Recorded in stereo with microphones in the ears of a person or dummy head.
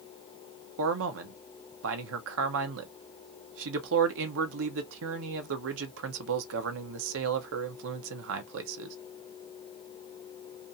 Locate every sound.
0.8 s a man speaking: 65° right (ahead or behind), 0.6 m